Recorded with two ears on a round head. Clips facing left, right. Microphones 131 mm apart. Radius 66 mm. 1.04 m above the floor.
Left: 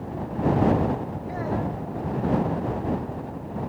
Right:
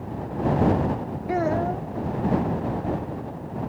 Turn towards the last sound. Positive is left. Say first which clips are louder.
# right 6 dB
turn(degrees=-70)  # may be behind; listen again after turning